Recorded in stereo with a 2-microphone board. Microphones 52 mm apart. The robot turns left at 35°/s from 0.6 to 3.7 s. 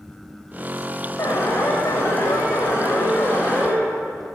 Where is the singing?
No singing in this recording.